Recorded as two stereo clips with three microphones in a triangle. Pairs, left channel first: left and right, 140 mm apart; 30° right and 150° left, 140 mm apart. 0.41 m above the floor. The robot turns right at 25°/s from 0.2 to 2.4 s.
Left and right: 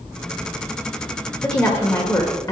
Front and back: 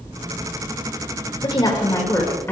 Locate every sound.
1.4 s a woman speaking: 10° left, 1.7 m; by 2.5 s 35° left, 1.7 m